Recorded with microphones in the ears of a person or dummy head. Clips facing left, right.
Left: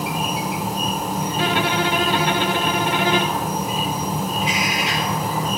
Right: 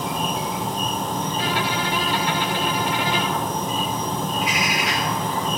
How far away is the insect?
About 1.2 m.